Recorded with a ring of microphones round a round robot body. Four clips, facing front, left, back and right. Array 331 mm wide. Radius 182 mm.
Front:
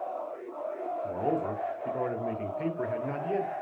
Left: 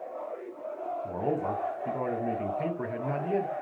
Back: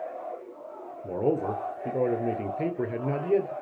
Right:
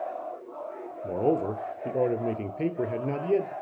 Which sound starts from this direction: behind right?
A man speaking, at 1.0 s.